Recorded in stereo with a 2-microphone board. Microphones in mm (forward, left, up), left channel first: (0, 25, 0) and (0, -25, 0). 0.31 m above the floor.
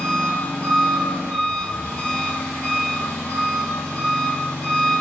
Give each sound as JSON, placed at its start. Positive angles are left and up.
{"t": 0.0, "sound": "an engine running", "side_deg": 35, "distance_m": 0.8}